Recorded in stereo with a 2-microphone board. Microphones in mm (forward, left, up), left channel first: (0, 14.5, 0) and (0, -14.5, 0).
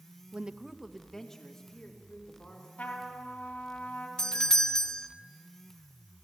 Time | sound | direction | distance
0.3 | a woman speaking | 50° right (ahead or behind) | 0.7 m
2.8 | a trumpet | 75° left (ahead or behind) | 3 m
4.2 | a doorbell | 25° left (ahead or behind) | 0.7 m